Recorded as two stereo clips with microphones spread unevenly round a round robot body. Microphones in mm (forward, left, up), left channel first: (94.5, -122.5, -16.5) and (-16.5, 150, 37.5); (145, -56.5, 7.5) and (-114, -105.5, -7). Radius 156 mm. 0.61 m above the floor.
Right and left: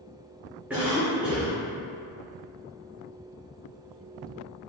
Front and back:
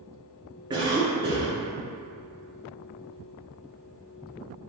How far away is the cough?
About 0.6 m.